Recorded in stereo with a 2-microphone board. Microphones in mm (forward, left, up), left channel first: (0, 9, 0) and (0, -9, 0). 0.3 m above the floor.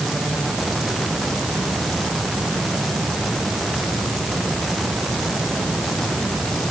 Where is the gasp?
No gasp in this recording.